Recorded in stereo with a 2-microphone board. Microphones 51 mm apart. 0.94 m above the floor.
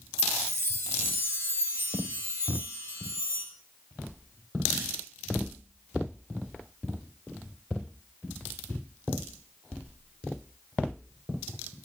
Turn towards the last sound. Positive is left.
turn(degrees=-60)  # may be behind; listen again after turning